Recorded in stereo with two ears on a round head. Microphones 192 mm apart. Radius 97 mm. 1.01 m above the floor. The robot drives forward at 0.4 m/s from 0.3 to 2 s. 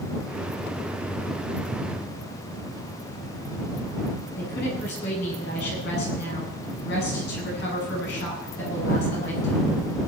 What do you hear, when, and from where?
4.4 s a woman speaking: 55° left (ahead or behind), 8.5 m